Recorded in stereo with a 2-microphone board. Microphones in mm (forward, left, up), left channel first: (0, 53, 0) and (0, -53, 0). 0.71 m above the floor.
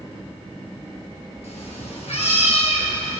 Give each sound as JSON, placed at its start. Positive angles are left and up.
{"t": 1.4, "sound": "a cat meowing", "side_deg": 80, "distance_m": 2.5}